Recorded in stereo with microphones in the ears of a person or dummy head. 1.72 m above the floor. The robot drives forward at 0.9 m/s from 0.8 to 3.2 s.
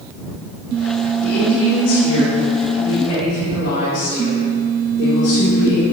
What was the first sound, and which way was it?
A woman speaking, 70° left (ahead or behind).